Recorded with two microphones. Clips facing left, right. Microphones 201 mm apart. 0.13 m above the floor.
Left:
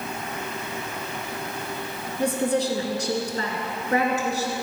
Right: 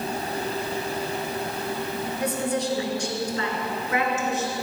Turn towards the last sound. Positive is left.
turn(degrees=35)  # may be behind; listen again after turning